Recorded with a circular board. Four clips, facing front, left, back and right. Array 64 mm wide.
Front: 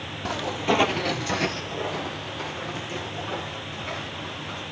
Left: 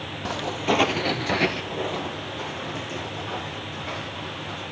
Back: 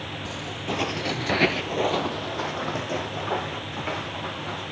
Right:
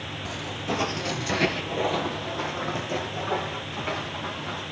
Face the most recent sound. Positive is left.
turn(degrees=-150)